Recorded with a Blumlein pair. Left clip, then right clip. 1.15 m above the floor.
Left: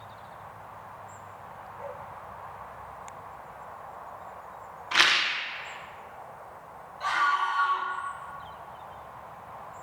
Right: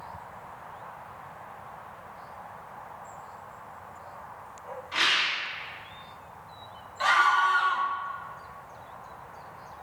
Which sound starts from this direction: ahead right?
A scream, at 7.0 s.